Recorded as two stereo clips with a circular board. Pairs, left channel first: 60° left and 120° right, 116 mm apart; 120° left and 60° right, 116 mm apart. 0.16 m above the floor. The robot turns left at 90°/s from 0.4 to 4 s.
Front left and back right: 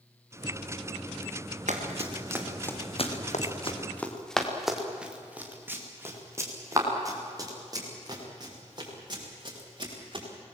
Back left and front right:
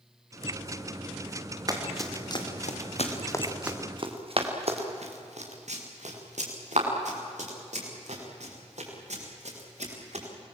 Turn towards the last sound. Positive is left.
turn(degrees=-70)